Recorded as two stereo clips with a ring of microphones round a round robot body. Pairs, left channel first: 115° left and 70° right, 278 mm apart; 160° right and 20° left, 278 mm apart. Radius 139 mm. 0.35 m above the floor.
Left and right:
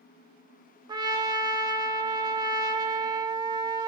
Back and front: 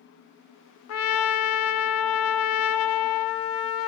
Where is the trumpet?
140° right, 0.5 m.